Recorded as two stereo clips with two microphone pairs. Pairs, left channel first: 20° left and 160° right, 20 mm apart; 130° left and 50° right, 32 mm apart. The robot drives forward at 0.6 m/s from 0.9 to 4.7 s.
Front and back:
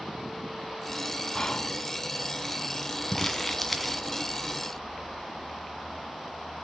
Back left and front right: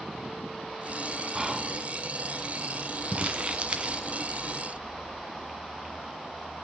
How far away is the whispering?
About 1.3 m.